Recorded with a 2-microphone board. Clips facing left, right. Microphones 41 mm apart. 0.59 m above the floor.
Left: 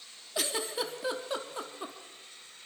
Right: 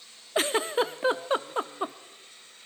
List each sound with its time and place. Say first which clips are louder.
0.3 s a giggle: right 8 dB; 40° right (ahead or behind), 0.5 m